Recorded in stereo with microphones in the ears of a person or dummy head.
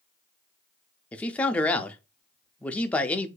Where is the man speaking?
10° left (ahead or behind), 0.5 m.